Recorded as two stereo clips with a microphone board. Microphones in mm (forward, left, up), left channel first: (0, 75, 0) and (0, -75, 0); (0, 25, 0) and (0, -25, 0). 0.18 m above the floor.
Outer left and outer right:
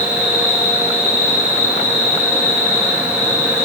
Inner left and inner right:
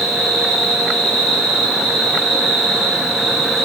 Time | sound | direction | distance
0.0 | an insect | 5° right (ahead or behind) | 0.9 m